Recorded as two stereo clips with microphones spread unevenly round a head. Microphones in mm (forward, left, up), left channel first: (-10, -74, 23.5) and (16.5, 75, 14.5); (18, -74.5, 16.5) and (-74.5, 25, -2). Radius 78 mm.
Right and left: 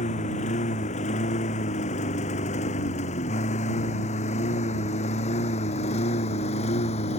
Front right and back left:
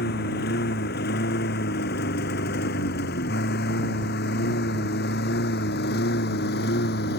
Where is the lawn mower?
50° right.